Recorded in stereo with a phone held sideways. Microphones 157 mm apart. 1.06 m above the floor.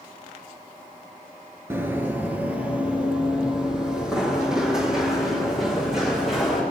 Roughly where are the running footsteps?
Centre.